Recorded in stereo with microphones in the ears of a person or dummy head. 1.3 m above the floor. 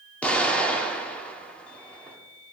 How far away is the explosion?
About 2.5 m.